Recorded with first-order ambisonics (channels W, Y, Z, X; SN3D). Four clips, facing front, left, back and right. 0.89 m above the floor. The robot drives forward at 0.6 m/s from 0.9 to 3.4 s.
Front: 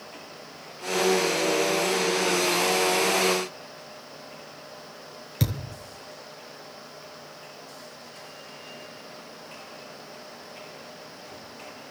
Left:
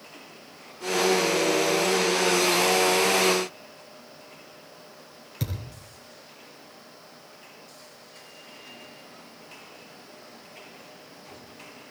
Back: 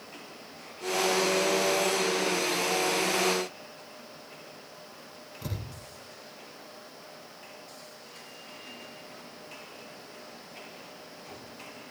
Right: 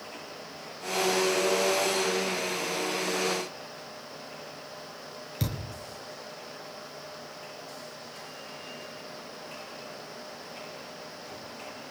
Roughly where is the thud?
Ahead.